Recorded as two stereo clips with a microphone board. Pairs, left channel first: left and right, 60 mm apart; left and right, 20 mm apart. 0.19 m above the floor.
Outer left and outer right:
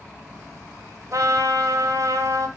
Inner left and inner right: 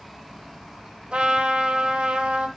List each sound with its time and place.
1.1 s a trumpet: 65° right (ahead or behind), 2 m